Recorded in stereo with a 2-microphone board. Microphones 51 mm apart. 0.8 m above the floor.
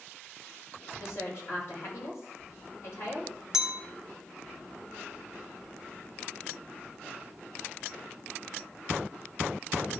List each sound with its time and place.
1.0 s a woman speaking: 65° left (ahead or behind), 5 m
3.5 s a clink: 10° right (ahead or behind), 1.3 m